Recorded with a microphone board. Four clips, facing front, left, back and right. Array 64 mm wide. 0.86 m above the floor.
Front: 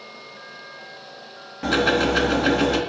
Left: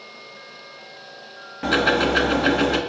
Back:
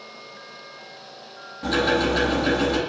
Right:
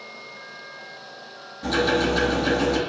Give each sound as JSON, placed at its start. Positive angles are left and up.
{"t": 1.6, "sound": "ticking", "azimuth_deg": 65, "distance_m": 1.0}